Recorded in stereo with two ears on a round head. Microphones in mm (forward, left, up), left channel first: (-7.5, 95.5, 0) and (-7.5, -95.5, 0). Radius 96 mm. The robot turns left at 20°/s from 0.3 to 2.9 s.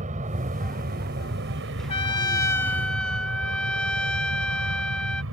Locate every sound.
0.0 s an aircraft: 35° right (ahead or behind); by 5.3 s 65° right (ahead or behind)
1.9 s a trumpet: 25° left (ahead or behind); by 5.2 s 5° left (ahead or behind)